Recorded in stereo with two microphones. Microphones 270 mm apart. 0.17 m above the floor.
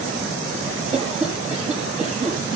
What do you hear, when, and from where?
0.9 s a cough: 25° right (ahead or behind), 6.5 m